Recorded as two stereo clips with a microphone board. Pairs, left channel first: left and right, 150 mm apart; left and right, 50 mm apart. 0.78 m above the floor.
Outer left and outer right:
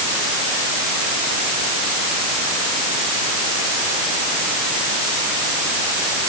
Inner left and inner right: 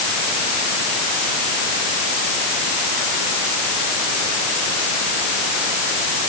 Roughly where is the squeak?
No squeak in this recording.